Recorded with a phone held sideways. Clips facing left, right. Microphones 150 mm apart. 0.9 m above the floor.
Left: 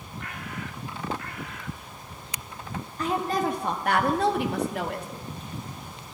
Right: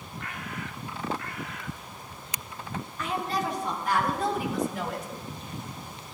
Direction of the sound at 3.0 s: 35° left (ahead or behind).